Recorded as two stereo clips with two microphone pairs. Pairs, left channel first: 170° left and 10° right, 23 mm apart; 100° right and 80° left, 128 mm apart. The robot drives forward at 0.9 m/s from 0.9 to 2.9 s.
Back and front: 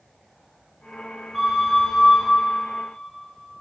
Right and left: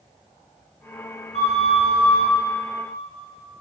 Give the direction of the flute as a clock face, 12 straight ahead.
3 o'clock.